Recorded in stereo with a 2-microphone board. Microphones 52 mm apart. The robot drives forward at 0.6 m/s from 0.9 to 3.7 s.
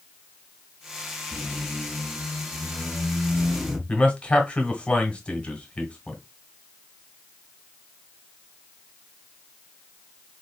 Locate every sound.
1.3 s a squeak: 20° right (ahead or behind), 1.3 m; by 3.8 s 10° right (ahead or behind), 2.5 m
3.9 s a man speaking: 25° left (ahead or behind), 1.4 m